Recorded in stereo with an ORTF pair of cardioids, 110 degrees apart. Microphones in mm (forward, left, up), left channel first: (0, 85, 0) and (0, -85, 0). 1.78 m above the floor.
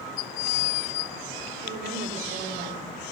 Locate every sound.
1.6 s a woman speaking: 65° right, 8 m